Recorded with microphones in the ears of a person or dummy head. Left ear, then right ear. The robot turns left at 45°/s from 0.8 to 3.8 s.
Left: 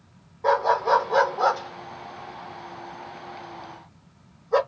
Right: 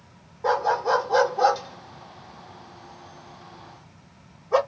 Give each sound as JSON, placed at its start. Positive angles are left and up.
{"t": 0.4, "sound": "a dog barking", "side_deg": -5, "distance_m": 1.4}